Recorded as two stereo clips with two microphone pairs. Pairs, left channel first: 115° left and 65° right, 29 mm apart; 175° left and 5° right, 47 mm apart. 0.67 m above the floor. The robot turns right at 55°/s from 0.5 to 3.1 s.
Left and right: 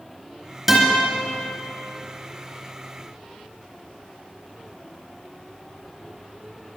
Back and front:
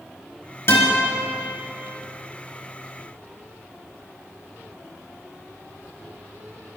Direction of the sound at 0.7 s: 160° right.